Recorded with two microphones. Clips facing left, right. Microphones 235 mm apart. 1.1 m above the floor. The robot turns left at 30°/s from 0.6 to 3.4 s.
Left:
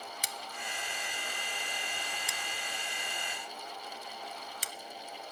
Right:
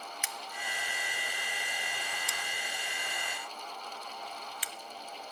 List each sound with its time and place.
0.2 s scissors: 40° left (ahead or behind), 0.6 m; by 4.7 s 45° left (ahead or behind), 0.6 m